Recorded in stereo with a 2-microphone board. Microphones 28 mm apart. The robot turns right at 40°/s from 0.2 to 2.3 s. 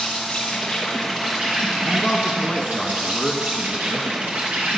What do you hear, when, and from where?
0.0 s an insect: 150° left, 3 m; by 4.8 s 125° right, 3 m
1.8 s a man speaking: 20° left (ahead or behind), 1.1 m